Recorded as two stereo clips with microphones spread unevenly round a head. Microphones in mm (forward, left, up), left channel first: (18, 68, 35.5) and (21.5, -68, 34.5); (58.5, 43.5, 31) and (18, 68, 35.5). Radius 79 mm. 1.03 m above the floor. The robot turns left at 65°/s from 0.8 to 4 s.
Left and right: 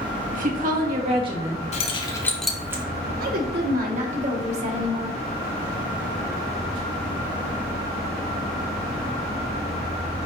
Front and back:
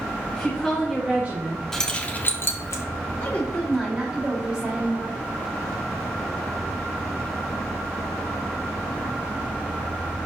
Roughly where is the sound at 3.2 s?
Right.